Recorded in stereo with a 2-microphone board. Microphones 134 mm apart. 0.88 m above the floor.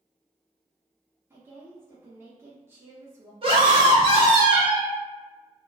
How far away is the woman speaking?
About 0.8 m.